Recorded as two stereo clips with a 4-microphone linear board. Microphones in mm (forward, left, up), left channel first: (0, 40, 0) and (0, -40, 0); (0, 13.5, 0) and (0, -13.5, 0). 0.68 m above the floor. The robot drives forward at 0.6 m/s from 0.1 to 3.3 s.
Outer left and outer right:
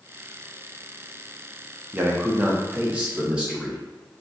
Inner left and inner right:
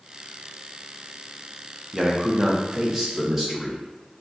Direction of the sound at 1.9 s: 30° right (ahead or behind).